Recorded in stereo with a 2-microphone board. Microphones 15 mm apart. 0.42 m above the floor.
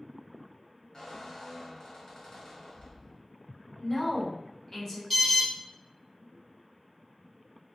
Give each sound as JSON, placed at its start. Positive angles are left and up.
{"t": 0.9, "sound": "a squeak", "side_deg": 50, "distance_m": 1.4}
{"t": 3.8, "sound": "a woman speaking", "side_deg": 35, "distance_m": 1.1}
{"t": 5.1, "sound": "an alarm", "side_deg": 10, "distance_m": 1.3}